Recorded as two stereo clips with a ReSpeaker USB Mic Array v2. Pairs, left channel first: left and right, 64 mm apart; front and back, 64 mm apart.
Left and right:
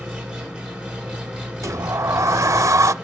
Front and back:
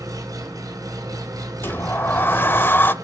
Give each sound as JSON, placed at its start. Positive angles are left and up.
{"t": 0.0, "sound": "an engine running", "azimuth_deg": -165, "distance_m": 5.0}
{"t": 1.6, "sound": "a sliding door", "azimuth_deg": -55, "distance_m": 0.5}